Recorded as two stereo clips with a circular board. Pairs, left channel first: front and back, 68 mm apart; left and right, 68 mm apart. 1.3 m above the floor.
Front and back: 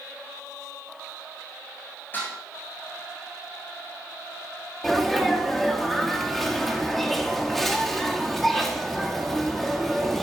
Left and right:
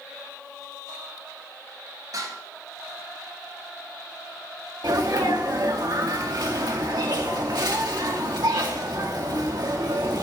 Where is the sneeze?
85° right, 2.0 m.